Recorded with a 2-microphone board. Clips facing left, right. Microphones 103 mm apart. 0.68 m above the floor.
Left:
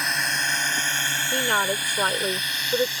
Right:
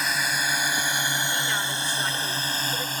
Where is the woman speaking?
55° left (ahead or behind).